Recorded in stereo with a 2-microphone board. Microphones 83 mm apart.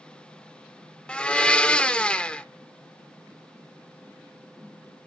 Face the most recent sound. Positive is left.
turn(degrees=15)  # may be behind; listen again after turning